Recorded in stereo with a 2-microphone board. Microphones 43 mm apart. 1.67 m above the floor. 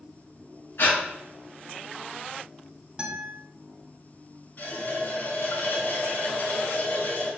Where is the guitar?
15° right (ahead or behind), 2.0 m.